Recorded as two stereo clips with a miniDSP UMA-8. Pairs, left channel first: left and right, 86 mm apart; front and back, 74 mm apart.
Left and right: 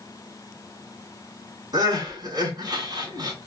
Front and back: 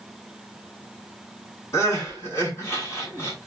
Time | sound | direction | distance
1.7 | crying | 50° right | 3 m